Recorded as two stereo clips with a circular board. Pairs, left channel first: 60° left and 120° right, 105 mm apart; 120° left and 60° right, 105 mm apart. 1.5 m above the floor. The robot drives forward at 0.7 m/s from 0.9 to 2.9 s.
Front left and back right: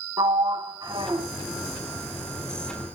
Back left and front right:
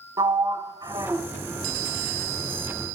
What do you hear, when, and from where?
0.2 s a sliding door: 95° right, 0.6 m; by 1.3 s 125° right, 0.7 m